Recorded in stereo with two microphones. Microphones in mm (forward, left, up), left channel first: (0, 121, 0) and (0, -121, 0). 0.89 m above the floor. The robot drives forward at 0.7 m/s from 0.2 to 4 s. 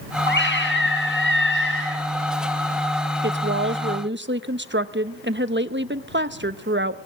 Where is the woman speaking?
50° right (ahead or behind), 1.0 m.